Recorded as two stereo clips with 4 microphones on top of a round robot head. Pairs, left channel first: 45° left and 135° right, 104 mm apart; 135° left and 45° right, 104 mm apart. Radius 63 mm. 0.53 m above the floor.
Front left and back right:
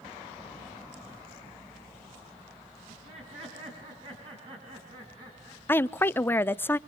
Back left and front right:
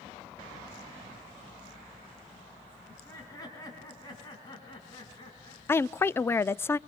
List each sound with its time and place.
2.9 s laughter: 165° right, 6 m; by 5.6 s 170° left, 6 m
5.7 s a woman speaking: 90° left, 0.6 m